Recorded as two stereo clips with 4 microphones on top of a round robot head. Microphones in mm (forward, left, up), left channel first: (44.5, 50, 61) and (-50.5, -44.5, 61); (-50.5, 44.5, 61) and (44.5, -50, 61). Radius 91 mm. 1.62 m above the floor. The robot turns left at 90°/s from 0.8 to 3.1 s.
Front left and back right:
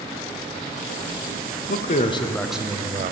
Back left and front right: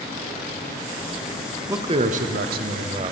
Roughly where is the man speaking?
Ahead left.